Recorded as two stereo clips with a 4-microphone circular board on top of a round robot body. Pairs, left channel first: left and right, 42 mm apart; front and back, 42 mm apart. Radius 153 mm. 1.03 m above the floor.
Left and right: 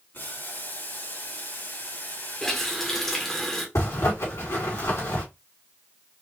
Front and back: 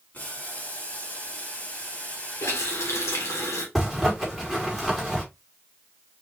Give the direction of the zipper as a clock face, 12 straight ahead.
9 o'clock.